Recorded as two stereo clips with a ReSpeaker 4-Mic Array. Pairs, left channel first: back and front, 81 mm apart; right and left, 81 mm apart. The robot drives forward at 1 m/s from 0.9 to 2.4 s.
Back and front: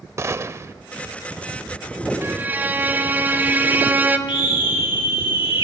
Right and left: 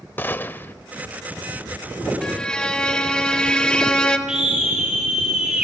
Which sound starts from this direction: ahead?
A violin, at 2.2 s.